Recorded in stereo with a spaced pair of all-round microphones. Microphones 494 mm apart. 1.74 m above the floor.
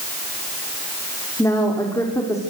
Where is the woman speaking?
5° left (ahead or behind), 4.5 m.